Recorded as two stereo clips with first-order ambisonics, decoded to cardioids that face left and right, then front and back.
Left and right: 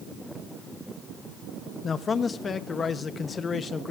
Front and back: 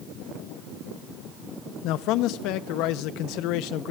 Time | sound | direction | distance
1.8 | a man speaking | 20° left | 0.8 m